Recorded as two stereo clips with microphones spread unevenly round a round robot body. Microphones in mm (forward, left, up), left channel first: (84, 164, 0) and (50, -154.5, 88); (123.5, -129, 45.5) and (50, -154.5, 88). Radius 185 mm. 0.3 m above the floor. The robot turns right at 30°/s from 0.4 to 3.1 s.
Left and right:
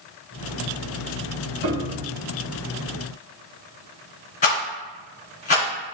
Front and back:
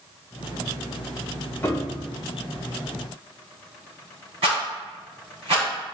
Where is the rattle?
150° left, 2 m.